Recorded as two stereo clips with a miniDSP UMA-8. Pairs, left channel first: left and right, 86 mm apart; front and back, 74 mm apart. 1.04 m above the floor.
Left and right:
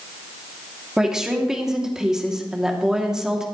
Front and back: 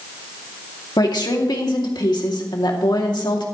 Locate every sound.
1.0 s a woman speaking: 5° right, 2.5 m